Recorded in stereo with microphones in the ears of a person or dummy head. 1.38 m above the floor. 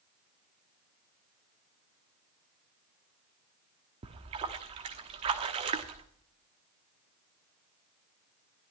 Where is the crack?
No crack in this recording.